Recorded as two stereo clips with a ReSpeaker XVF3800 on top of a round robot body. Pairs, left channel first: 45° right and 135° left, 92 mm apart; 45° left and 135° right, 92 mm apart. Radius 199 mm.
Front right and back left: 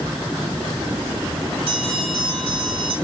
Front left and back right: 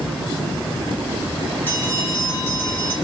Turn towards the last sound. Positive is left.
turn(degrees=115)